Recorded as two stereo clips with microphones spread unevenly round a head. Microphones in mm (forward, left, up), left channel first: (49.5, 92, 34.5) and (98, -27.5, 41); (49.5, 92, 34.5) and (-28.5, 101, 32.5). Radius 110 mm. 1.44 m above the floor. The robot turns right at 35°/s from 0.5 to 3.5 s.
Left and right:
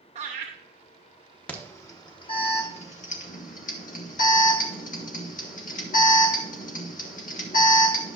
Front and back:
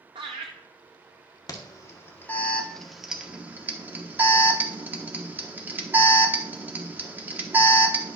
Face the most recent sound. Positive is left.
turn(degrees=105)